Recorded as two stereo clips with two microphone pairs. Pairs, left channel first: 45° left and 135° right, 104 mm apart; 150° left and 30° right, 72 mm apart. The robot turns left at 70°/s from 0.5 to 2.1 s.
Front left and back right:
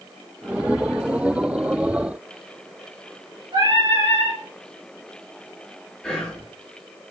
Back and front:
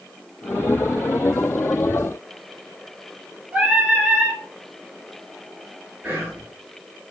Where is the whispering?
25° right, 1.7 m.